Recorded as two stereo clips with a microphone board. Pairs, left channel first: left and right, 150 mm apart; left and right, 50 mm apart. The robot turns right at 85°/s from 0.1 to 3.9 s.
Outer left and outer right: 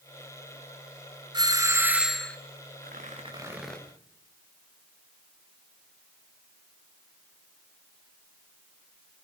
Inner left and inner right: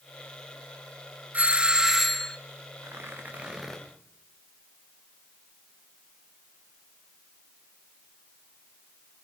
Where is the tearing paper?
75° right, 4 m; by 3.8 s 15° left, 4 m.